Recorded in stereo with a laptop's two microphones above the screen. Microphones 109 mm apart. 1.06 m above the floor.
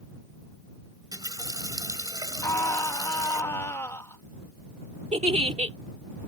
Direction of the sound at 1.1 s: 35° right (ahead or behind).